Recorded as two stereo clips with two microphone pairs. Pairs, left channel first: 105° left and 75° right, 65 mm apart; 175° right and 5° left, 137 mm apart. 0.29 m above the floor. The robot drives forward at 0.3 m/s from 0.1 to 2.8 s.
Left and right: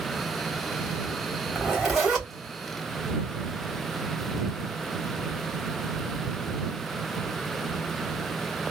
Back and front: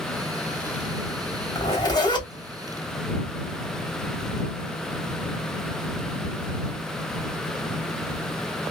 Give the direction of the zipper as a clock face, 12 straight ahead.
5 o'clock.